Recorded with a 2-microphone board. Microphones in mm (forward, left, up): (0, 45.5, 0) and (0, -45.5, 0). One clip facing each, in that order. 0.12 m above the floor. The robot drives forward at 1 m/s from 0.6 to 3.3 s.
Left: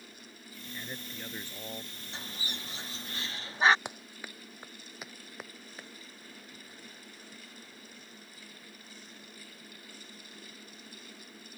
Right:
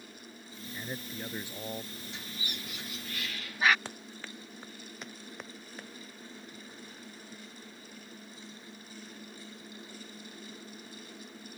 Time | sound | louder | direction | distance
0.7 | a man speaking | right 3 dB | 15° right (ahead or behind) | ?
2.1 | a bird | left 3 dB | 30° left (ahead or behind) | ?
3.9 | running footsteps | even | 15° left (ahead or behind) | ?